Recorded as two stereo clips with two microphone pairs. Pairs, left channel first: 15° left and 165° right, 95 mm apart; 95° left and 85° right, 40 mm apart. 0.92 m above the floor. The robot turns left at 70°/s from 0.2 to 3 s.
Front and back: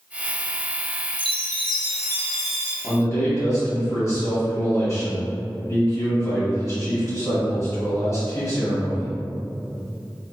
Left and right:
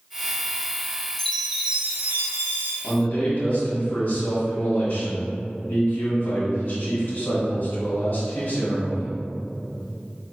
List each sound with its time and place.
1.2 s a chime: 20° left, 0.6 m; by 2.7 s 90° right, 0.6 m
2.8 s a man speaking: 80° left, 1.7 m; by 9.2 s 70° left, 1.7 m